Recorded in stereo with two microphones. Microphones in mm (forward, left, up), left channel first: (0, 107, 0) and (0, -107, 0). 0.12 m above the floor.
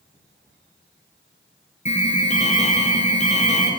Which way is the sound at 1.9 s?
30° left (ahead or behind).